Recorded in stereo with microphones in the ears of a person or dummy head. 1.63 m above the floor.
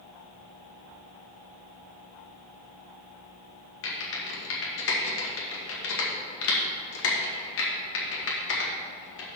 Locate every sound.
3.8 s typing on a keyboard: 85° left, 1.9 m